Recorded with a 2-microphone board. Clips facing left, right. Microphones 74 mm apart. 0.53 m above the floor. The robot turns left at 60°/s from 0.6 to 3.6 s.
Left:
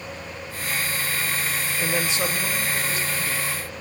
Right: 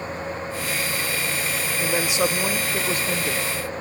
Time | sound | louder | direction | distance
1.8 | a woman speaking | right 3 dB | straight ahead | 1.6 m